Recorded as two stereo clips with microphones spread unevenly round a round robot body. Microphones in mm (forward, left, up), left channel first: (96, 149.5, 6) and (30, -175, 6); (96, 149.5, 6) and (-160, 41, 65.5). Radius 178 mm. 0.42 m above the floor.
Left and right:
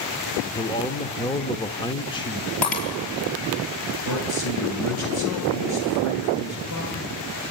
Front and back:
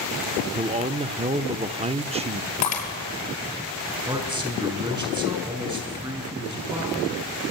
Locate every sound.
0.6 s a man speaking: 135° left, 0.9 m
2.6 s breaking glass: 50° left, 6 m
4.1 s a man speaking: 125° left, 6.5 m